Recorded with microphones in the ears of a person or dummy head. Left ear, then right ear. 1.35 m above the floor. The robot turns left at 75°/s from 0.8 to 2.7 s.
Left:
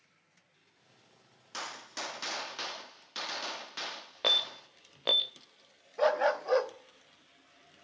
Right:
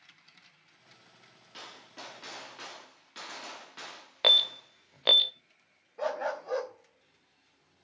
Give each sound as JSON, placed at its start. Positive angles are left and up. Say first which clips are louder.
{"t": 1.5, "sound": "a gunshot", "louder": "left 7 dB", "azimuth_deg": 130, "distance_m": 1.4}
{"t": 4.2, "sound": "an alarm", "louder": "right 6 dB", "side_deg": -25, "distance_m": 0.5}
{"t": 6.0, "sound": "a dog barking", "louder": "left 6 dB", "side_deg": 30, "distance_m": 1.0}